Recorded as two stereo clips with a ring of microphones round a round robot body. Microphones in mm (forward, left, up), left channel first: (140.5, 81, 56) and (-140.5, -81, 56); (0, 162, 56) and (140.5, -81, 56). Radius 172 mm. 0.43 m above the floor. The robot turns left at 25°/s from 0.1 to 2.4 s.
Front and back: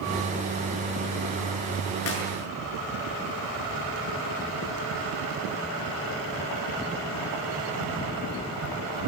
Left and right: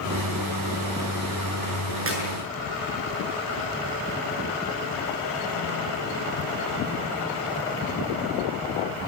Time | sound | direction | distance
2.1 | a clap | 20° right | 7.5 m